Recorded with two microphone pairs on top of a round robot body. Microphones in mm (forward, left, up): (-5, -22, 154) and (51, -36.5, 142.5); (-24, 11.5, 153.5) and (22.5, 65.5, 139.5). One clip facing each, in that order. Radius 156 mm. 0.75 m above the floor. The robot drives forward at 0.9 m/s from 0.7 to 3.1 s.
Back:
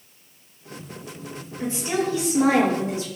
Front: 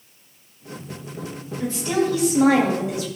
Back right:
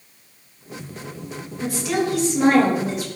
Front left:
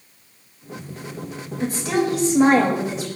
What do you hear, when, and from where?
1.6 s a woman speaking: 90° left, 5 m; by 3.1 s 105° left, 5 m